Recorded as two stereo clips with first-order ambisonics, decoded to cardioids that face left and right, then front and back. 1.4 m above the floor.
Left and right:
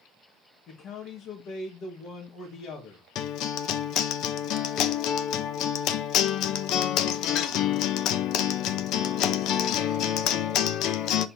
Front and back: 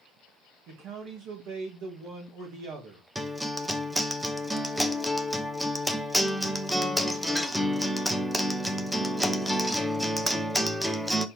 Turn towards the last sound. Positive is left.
turn(degrees=95)